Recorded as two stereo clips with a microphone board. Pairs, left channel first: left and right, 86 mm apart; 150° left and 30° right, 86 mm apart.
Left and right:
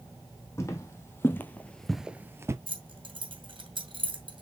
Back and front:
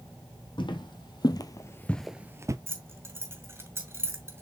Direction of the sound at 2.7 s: 90° right.